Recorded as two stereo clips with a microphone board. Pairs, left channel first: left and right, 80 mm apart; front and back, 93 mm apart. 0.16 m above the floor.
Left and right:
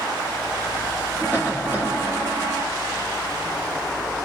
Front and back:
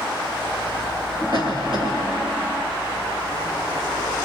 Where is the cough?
150° left, 3.5 m.